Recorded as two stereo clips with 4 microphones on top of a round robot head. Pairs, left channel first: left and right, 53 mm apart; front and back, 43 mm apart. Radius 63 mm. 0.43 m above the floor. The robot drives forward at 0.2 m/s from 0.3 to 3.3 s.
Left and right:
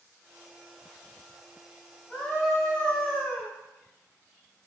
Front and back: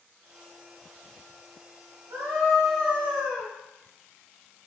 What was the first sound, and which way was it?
A scream, 155° left.